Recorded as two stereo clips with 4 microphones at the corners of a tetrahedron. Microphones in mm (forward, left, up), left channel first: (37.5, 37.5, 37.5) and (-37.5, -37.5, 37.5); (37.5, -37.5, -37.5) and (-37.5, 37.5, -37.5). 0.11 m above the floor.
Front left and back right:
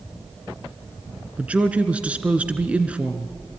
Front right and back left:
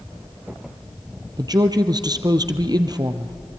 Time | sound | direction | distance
1.4 | a woman speaking | 155° left | 1.5 m